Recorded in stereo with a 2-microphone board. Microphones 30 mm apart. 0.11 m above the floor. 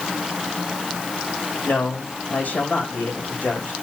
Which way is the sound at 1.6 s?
75° left (ahead or behind).